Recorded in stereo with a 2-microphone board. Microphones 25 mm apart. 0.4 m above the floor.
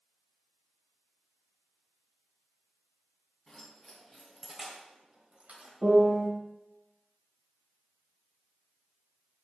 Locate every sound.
3.5 s keys jangling: 20° left (ahead or behind), 2.5 m; by 5.7 s 65° right (ahead or behind), 1.8 m
5.8 s a piano: 40° right (ahead or behind), 2 m